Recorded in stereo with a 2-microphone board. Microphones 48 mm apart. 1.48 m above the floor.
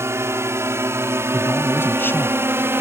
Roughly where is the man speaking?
Left.